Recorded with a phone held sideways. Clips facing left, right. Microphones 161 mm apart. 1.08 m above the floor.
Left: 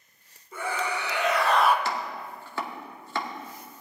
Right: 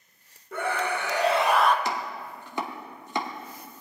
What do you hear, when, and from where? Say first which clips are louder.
0.5 s a scream: right 2 dB; 65° right (ahead or behind), 1.5 m; by 1.8 s 15° left (ahead or behind), 0.7 m
1.9 s chopping: even; 20° right (ahead or behind), 0.9 m